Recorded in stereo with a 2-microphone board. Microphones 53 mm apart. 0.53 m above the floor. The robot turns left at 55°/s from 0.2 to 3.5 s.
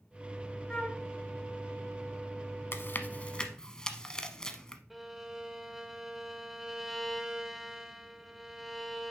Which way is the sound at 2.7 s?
55° left (ahead or behind).